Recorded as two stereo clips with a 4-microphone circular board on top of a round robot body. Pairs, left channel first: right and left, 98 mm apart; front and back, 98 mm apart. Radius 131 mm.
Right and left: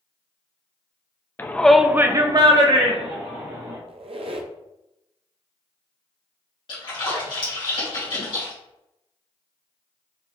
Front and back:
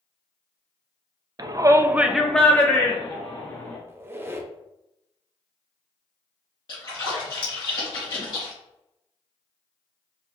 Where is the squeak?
115° left, 0.5 m.